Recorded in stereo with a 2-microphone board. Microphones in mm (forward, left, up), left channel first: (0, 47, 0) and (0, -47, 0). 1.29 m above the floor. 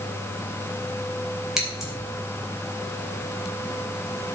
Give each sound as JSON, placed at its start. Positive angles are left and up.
{"t": 1.6, "sound": "scissors", "side_deg": -5, "distance_m": 4.0}